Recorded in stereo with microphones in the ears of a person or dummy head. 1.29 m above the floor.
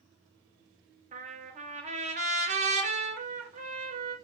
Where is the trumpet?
35° right (ahead or behind), 0.6 m.